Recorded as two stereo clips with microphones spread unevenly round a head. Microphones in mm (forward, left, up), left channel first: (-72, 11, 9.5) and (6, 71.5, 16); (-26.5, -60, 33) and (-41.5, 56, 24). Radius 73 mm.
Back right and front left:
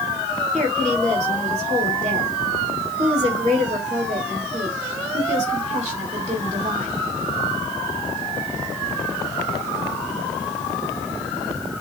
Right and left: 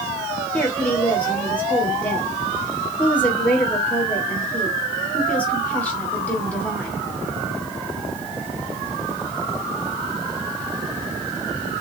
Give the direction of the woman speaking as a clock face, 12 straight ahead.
12 o'clock.